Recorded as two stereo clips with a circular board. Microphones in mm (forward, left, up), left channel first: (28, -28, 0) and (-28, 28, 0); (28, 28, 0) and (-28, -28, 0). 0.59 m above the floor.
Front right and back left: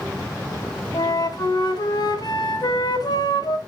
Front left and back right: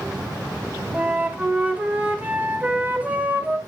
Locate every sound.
0.9 s a flute: 65° right, 2 m